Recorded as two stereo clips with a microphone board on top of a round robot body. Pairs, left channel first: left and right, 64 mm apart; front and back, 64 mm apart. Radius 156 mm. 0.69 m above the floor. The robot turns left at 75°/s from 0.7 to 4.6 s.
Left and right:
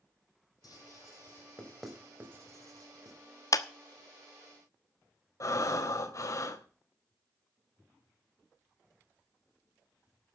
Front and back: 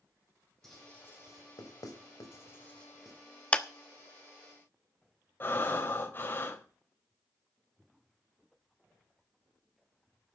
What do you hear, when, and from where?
0.6 s writing: 85° left, 4 m; by 3.2 s 100° right, 4 m
3.5 s a clap: 70° left, 1.3 m; by 3.7 s 60° left, 1.3 m
5.4 s breathing: 60° left, 2.5 m